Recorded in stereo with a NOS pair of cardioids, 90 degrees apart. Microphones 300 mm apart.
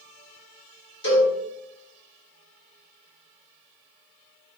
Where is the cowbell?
40° left, 1.6 m.